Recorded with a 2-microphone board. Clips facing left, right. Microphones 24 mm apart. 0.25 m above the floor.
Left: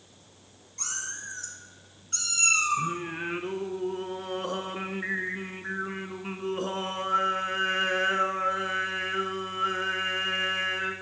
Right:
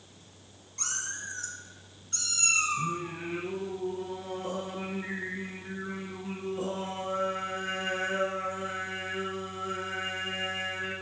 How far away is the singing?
About 0.6 m.